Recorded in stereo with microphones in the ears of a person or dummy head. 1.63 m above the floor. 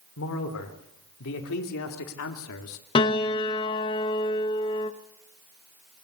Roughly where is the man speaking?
Left.